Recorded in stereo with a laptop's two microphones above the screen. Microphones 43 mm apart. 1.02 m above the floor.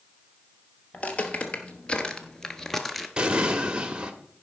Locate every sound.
0.9 s footsteps: 35° left (ahead or behind), 1.4 m; by 3.1 s 5° left (ahead or behind), 1.0 m
3.2 s an explosion: 20° right (ahead or behind), 1.3 m